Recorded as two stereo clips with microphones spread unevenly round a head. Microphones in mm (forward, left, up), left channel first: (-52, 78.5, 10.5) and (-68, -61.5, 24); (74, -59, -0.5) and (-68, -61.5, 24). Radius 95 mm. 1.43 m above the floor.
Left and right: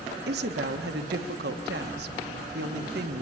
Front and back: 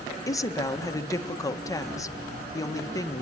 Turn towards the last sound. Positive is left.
turn(degrees=-65)